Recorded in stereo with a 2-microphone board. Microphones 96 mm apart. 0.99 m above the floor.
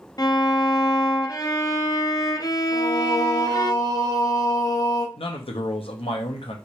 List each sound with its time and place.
0.2 s a violin: 40° left (ahead or behind), 0.5 m
2.7 s singing: 35° left (ahead or behind), 0.8 m
5.2 s a man speaking: 75° left (ahead or behind), 0.9 m